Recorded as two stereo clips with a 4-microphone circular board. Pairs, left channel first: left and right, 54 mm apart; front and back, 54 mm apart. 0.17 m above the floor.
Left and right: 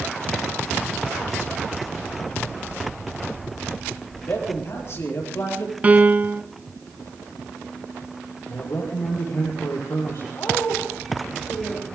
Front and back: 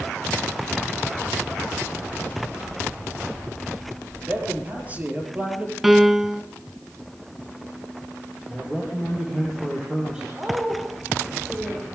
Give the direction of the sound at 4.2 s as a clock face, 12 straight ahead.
8 o'clock.